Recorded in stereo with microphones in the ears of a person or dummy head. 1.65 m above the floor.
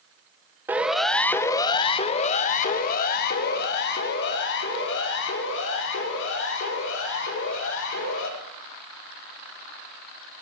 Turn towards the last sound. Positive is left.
turn(degrees=75)  # may be behind; listen again after turning